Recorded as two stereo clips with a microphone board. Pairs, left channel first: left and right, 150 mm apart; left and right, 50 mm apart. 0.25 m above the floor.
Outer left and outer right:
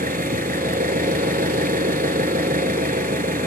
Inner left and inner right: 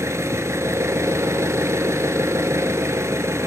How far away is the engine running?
About 0.8 m.